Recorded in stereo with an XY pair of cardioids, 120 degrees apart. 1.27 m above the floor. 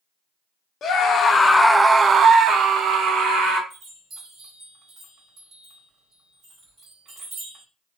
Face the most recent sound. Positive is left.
turn(degrees=-55)